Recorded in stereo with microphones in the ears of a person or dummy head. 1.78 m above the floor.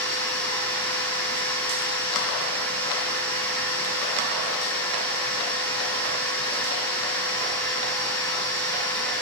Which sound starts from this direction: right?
A machine running, at 0.0 s.